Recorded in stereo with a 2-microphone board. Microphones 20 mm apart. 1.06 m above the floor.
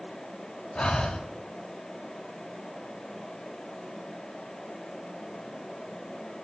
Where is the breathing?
60° left (ahead or behind), 0.9 m.